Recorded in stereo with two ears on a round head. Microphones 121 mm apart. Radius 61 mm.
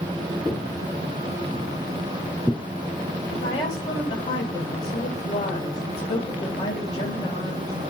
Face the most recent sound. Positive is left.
turn(degrees=50)  # may be behind; listen again after turning